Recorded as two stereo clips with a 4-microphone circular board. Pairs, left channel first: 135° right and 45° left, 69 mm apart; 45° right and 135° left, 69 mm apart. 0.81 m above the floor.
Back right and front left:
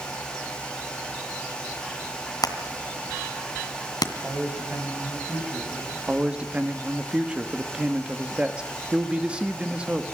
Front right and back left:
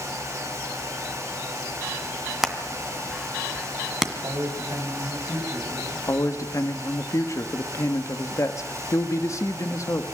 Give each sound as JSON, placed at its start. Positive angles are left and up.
{"t": 2.4, "sound": "hammering", "azimuth_deg": -140, "distance_m": 1.9}
{"t": 4.2, "sound": "a man speaking", "azimuth_deg": 110, "distance_m": 4.5}
{"t": 6.1, "sound": "a man speaking", "azimuth_deg": -25, "distance_m": 1.3}